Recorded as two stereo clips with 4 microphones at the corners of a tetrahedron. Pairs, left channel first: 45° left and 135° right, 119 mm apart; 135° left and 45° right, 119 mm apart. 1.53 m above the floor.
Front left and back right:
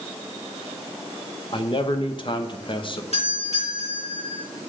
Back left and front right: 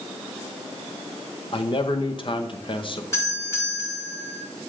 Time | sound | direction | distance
1.5 | a man speaking | 90° left | 1.0 m
3.1 | a doorbell | 70° left | 5.5 m